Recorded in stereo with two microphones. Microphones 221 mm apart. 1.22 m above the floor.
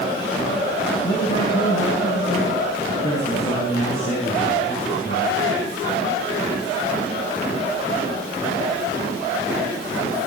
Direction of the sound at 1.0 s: 85° left.